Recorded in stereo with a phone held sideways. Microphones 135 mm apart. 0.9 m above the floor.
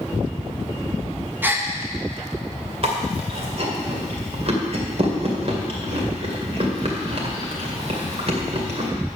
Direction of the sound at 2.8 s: 50° right (ahead or behind).